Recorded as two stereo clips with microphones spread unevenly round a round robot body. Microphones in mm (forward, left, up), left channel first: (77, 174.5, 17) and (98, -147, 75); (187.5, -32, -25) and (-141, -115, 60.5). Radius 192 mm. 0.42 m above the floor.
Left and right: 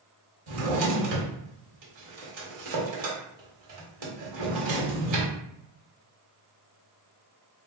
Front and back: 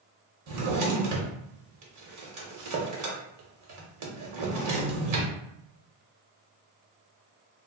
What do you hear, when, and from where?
0.5 s a drawer: 125° right, 1.2 m